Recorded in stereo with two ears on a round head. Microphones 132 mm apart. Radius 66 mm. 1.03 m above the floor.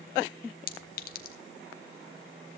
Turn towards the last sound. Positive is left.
turn(degrees=65)  # may be behind; listen again after turning